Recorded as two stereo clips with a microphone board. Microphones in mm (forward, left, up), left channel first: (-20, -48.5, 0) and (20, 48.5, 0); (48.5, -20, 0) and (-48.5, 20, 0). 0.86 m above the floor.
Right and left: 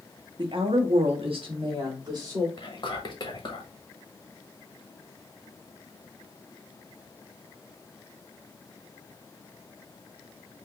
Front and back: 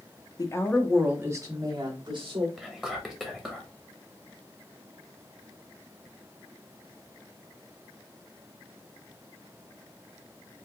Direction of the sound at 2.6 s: 110° right.